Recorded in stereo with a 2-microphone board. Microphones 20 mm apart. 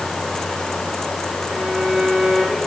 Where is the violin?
45° right (ahead or behind), 8.5 m.